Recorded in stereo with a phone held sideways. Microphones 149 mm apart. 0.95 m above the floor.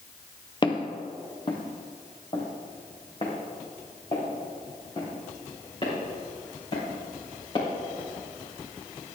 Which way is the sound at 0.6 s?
30° left (ahead or behind).